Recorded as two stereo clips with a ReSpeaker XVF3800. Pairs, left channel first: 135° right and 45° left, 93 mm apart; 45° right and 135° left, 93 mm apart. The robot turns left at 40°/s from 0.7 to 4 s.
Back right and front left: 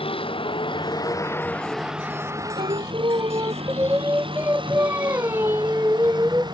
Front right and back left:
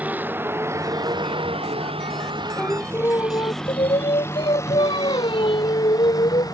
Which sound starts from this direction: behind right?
A vehicle, at 0.0 s.